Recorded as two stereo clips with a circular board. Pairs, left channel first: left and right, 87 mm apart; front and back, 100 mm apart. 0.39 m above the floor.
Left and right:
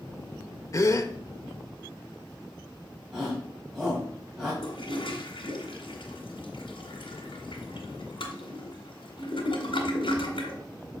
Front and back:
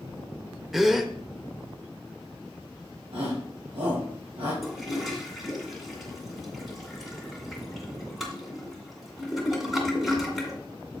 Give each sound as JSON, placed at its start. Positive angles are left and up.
{"t": 0.7, "sound": "a gasp", "azimuth_deg": 95, "distance_m": 0.7}
{"t": 3.1, "sound": "a shout", "azimuth_deg": -175, "distance_m": 3.0}
{"t": 4.6, "sound": "a toilet flushing", "azimuth_deg": 90, "distance_m": 1.9}